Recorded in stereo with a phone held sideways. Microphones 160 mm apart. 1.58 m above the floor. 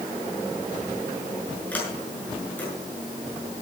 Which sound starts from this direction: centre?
A sliding door, at 1.7 s.